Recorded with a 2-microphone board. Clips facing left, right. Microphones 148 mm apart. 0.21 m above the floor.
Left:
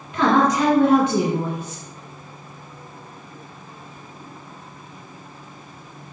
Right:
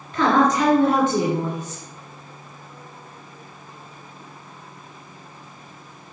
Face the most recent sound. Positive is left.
turn(degrees=15)  # may be behind; listen again after turning